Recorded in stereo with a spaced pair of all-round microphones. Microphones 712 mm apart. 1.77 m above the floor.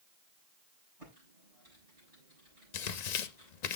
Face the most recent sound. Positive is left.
turn(degrees=70)  # may be behind; listen again after turning